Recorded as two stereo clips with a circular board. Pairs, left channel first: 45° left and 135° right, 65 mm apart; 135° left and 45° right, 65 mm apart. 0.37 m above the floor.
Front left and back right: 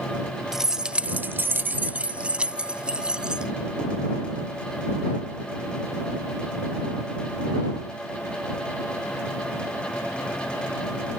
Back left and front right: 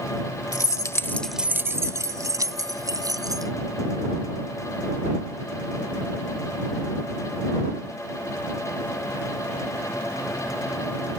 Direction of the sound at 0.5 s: 145° left.